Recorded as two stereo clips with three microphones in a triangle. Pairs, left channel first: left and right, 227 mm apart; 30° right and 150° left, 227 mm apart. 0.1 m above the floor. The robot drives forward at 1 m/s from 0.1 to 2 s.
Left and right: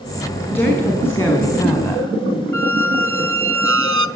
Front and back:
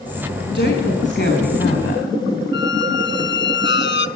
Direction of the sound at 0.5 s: 10° left.